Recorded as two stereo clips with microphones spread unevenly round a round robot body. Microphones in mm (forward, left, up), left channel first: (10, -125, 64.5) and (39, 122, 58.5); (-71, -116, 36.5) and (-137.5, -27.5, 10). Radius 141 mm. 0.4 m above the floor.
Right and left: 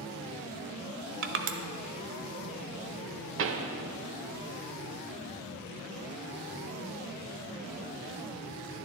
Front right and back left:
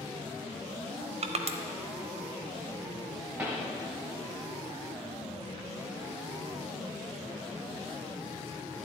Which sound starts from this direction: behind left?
Crushing, at 1.2 s.